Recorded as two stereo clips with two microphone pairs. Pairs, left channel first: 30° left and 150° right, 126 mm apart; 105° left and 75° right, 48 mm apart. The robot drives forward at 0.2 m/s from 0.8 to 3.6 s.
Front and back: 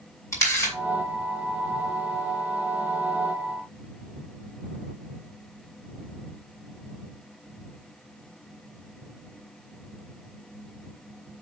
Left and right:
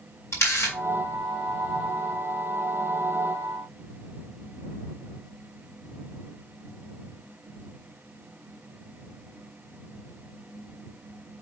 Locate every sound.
0.3 s a camera shutter: 95° left, 5 m